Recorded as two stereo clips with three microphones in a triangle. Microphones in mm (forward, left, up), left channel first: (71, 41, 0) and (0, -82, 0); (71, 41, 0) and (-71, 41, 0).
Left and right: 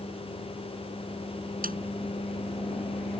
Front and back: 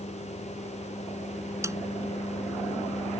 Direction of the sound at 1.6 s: 110° right.